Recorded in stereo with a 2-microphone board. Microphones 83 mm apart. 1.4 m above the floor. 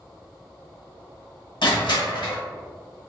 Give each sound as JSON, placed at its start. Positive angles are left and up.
{"t": 1.6, "sound": "crushing", "side_deg": 70, "distance_m": 1.1}